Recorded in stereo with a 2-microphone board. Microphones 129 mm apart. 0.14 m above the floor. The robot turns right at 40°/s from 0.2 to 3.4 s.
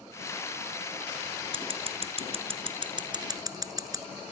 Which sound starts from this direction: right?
Scissors, at 1.5 s.